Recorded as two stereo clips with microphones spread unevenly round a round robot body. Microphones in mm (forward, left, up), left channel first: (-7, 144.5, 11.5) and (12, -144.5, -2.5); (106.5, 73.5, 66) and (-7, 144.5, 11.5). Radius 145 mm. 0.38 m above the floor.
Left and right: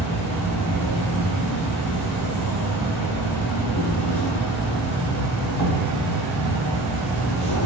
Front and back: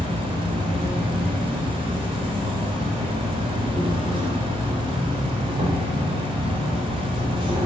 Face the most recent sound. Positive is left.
turn(degrees=125)